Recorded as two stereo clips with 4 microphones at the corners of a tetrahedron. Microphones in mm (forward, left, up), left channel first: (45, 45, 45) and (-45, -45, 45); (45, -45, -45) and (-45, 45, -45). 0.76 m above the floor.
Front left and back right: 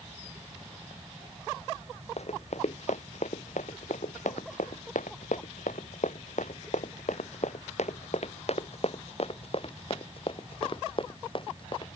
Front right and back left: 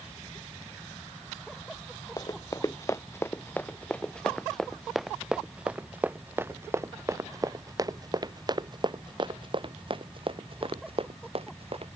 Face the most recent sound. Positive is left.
turn(degrees=95)